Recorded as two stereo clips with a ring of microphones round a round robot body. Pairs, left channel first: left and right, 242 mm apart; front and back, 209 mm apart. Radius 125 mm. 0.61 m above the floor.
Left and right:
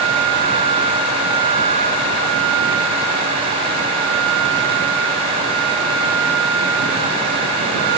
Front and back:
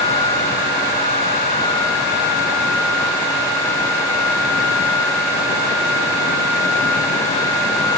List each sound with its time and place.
Only background noise.